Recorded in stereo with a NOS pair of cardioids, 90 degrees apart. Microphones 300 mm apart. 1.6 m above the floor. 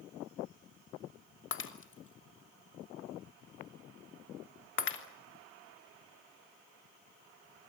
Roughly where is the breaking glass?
Ahead left.